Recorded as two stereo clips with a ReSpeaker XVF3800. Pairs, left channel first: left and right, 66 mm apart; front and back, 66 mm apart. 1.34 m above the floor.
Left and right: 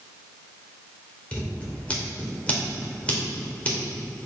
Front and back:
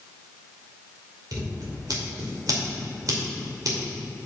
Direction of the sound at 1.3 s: 160° left.